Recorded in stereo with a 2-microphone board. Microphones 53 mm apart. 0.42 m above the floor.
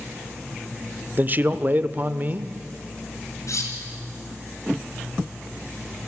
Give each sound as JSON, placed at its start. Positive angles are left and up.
{"t": 1.2, "sound": "a man speaking", "side_deg": -35, "distance_m": 0.9}
{"t": 3.5, "sound": "cutlery clinking", "side_deg": 70, "distance_m": 4.0}